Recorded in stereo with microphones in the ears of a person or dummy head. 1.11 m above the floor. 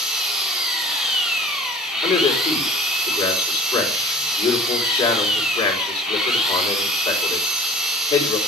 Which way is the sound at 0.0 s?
Centre (ahead or behind).